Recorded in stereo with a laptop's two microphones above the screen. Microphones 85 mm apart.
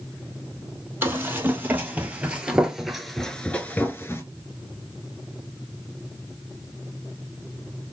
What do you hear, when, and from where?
1.0 s running footsteps: 25° right (ahead or behind), 2.0 m; by 4.2 s 30° left (ahead or behind), 1.0 m